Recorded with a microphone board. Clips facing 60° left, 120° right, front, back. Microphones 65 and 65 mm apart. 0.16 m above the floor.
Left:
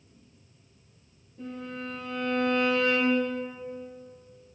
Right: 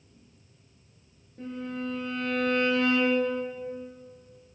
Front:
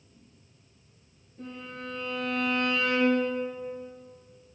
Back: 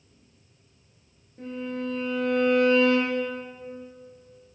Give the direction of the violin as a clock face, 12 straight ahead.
5 o'clock.